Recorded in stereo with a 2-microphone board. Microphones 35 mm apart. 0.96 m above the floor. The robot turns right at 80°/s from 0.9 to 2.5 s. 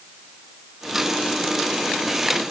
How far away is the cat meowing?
No cat meowing in this recording.